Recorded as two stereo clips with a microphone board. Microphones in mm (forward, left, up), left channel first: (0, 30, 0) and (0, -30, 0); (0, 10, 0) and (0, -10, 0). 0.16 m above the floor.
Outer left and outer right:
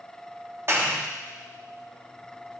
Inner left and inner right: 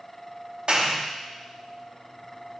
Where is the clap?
45° right (ahead or behind), 5 m.